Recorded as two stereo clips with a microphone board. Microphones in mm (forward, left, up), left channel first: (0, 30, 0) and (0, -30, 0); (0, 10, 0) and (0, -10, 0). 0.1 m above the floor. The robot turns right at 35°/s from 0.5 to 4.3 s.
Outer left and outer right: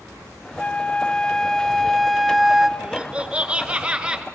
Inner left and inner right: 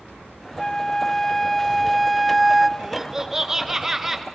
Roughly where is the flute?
Centre.